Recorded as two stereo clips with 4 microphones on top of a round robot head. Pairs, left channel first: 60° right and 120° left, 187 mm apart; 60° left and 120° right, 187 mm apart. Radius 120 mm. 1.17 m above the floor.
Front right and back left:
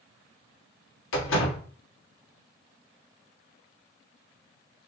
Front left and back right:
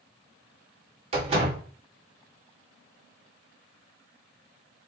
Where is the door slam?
60° right, 1.7 m.